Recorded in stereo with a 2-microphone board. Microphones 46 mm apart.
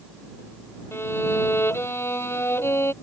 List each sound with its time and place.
0.9 s a violin: 60° left (ahead or behind)